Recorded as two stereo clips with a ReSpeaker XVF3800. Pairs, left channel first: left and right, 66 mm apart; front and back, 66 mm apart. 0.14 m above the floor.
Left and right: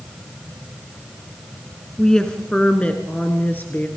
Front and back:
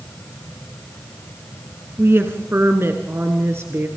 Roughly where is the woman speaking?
Behind.